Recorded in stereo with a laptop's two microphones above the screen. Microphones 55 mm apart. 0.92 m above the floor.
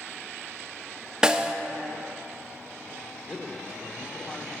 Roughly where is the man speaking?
Centre.